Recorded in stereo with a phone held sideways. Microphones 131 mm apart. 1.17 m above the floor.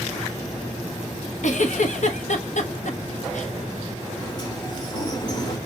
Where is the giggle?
65° left (ahead or behind), 0.9 m.